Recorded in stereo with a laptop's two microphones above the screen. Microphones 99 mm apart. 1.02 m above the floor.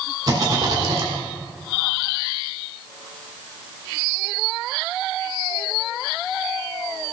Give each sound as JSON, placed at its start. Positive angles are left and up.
{"t": 0.3, "sound": "a rattle", "side_deg": -40, "distance_m": 2.0}